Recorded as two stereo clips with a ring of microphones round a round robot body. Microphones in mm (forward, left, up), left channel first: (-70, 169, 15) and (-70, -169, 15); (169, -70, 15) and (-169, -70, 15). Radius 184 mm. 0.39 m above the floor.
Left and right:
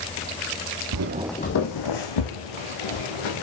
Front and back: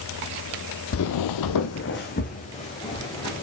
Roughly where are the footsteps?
Ahead right.